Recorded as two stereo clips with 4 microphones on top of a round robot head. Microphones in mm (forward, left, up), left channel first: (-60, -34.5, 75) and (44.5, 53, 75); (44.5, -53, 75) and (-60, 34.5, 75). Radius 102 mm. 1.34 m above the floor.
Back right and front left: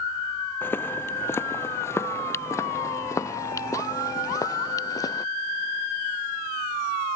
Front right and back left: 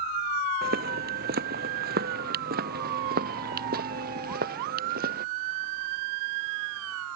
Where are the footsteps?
145° left; by 5.2 s 155° left.